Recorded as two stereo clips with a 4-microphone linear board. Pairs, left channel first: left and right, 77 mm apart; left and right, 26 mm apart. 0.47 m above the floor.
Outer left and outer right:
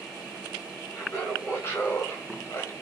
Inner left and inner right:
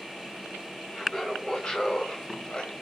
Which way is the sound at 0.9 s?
25° left (ahead or behind).